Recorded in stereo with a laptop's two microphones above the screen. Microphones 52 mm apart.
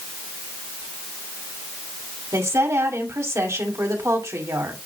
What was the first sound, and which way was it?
A woman speaking, 70° right (ahead or behind).